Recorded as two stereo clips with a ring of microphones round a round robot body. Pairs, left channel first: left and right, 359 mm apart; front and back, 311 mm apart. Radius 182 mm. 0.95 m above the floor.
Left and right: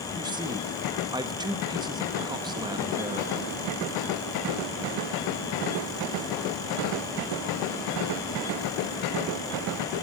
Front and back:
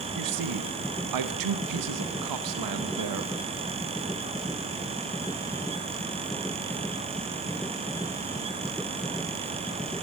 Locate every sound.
0.1 s a man speaking: 170° right, 1.1 m